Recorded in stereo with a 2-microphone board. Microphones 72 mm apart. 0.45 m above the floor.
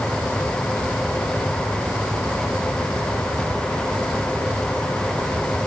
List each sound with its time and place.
Only background noise.